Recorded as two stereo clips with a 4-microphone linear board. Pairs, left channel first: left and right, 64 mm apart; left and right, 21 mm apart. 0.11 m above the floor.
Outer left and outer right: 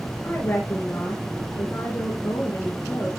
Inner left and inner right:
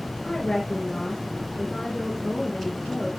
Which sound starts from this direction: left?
A woman speaking, at 0.2 s.